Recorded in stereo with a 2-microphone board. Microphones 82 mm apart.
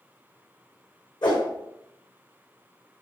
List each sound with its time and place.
1.2 s a whoosh: 60° left (ahead or behind), 4.5 m